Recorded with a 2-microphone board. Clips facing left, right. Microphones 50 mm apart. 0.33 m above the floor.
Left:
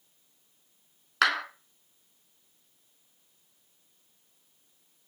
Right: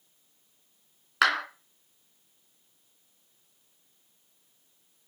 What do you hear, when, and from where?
1.2 s a clap: 5° right (ahead or behind), 3 m